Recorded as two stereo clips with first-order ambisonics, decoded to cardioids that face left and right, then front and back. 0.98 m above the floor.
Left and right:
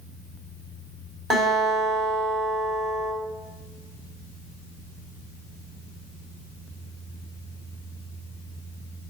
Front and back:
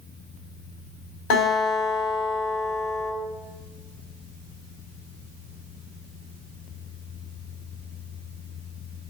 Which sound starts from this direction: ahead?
A guitar, at 1.3 s.